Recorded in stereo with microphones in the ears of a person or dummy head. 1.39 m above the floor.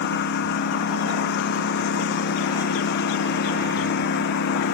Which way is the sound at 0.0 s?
60° left (ahead or behind).